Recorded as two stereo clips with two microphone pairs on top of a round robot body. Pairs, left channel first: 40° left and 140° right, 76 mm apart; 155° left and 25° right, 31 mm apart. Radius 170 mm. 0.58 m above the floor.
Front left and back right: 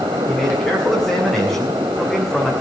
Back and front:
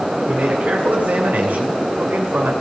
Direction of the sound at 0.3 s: 50° right.